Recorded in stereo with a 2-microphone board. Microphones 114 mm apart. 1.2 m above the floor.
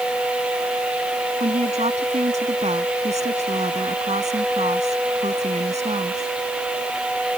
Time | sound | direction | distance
1.4 | a woman speaking | 80° right | ?